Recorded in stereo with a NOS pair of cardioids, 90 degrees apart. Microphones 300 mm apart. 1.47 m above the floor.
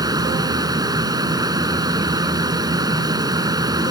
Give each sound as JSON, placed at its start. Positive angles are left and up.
{"t": 0.0, "sound": "a fan", "azimuth_deg": -10}